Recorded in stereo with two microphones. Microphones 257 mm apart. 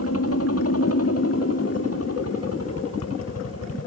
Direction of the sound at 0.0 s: 65° left (ahead or behind).